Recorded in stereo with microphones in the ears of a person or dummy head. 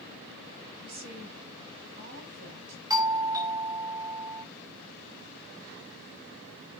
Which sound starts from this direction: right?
A woman speaking, at 0.8 s.